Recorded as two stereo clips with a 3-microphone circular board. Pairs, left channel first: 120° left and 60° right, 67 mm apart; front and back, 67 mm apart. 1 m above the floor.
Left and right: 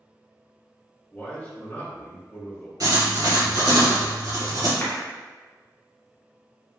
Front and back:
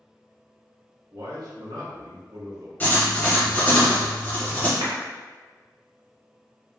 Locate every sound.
1.1 s a man speaking: straight behind, 1.2 m
2.8 s writing: 60° right, 1.2 m
4.8 s a clap: 175° left, 0.9 m